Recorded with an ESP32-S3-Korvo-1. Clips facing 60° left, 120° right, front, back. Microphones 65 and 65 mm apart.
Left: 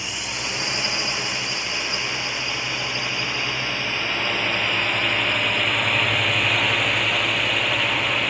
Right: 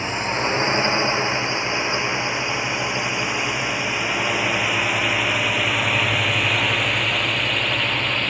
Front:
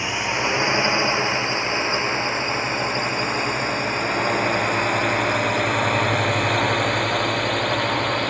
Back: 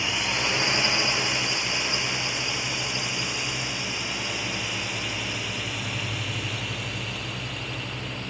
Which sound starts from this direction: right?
A drone, at 0.0 s.